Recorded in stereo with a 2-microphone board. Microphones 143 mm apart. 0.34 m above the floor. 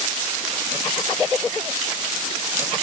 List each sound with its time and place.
Only background noise.